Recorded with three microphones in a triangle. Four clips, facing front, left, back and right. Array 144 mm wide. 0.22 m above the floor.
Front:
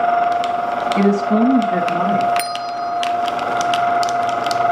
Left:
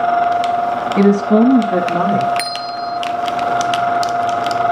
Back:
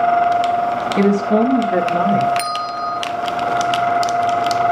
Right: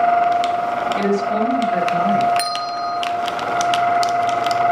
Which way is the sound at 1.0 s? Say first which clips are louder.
Left 10 dB, back 1 dB; 75° left.